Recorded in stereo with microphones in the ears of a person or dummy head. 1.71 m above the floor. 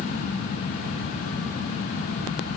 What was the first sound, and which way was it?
Only background noise.